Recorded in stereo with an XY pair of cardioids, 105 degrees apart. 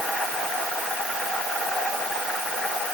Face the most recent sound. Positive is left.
No sound to turn to.